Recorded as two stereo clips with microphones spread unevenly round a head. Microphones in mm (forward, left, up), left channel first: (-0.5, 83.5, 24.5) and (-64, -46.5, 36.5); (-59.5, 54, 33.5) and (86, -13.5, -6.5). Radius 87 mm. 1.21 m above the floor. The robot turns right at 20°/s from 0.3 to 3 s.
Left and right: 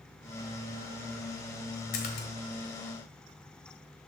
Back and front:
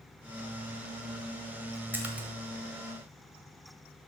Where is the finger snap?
I don't hear a finger snap.